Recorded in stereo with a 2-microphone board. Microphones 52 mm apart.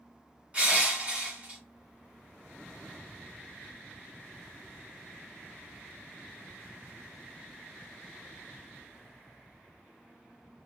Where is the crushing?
30° right (ahead or behind), 1.4 m.